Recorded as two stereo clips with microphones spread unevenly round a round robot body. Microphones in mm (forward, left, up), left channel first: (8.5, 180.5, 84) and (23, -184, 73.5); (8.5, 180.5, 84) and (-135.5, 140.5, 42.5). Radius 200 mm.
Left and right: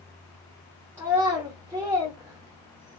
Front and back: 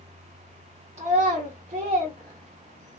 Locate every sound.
1.0 s a child speaking: 170° right, 0.9 m